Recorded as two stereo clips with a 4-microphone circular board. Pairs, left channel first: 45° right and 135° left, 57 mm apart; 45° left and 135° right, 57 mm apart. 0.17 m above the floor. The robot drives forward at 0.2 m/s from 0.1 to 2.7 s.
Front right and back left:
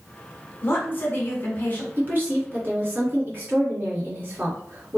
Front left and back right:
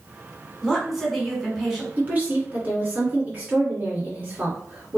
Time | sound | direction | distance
0.6 | a woman speaking | 45° right | 1.7 m
2.0 | a woman speaking | 170° left | 1.6 m